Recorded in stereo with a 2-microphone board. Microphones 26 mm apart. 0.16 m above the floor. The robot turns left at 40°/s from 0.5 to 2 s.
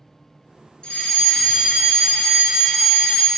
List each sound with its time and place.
0.8 s a fire alarm: 35° left, 4.5 m; by 3.3 s 10° right, 4.5 m